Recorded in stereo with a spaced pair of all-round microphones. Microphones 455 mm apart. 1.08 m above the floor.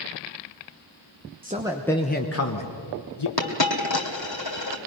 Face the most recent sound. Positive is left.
turn(degrees=55)  # may be behind; listen again after turning